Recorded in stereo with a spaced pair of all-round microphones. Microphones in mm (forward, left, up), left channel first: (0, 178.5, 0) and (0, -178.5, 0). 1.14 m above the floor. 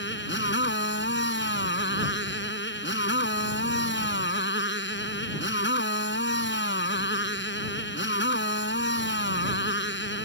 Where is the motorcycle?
30° left (ahead or behind).